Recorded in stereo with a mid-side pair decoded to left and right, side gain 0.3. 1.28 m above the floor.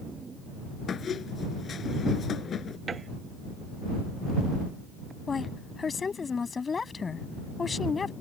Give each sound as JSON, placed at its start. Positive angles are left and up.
{"t": 0.9, "sound": "a squeak", "azimuth_deg": 70}
{"t": 2.9, "sound": "a piano", "azimuth_deg": -55}
{"t": 5.3, "sound": "a woman speaking", "azimuth_deg": 50}